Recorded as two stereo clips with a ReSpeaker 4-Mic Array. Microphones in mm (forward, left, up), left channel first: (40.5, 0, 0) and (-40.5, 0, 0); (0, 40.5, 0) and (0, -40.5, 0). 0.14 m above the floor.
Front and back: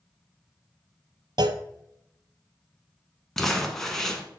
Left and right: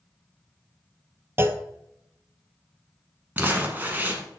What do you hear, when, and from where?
1.4 s a clunk: 150° right, 0.5 m
3.4 s crumpling: 75° right, 1.1 m